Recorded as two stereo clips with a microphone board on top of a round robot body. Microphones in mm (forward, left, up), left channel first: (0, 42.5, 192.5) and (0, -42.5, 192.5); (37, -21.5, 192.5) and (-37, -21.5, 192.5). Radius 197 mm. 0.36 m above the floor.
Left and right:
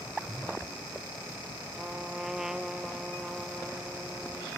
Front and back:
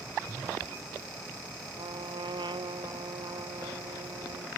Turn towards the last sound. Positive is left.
turn(degrees=-175)